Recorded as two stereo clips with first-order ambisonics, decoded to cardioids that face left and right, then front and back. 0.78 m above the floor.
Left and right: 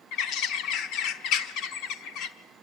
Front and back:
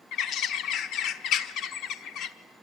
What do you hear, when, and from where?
0.1 s a bird: 50° left, 1.2 m